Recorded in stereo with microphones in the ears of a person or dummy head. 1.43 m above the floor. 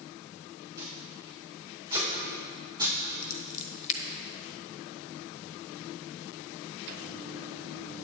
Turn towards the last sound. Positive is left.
turn(degrees=35)  # may be behind; listen again after turning